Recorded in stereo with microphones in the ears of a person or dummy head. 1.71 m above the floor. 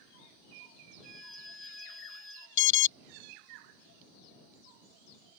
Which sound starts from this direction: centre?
A violin, at 1.0 s.